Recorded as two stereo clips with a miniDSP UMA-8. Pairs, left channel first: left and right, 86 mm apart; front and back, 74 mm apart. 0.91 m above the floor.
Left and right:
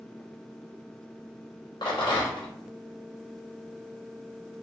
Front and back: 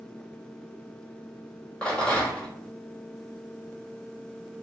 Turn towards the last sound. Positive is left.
turn(degrees=75)